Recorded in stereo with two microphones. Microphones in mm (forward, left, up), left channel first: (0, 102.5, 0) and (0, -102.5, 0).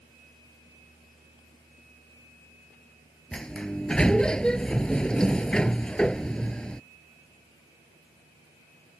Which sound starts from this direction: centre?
A sliding door, at 3.3 s.